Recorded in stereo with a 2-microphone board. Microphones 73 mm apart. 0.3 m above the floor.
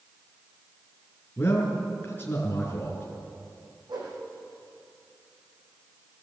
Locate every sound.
1.4 s a man speaking: 25° left (ahead or behind), 4 m
3.9 s a whoosh: 85° right, 6.5 m